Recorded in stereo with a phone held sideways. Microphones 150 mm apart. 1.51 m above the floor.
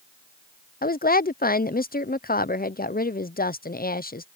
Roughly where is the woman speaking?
Left.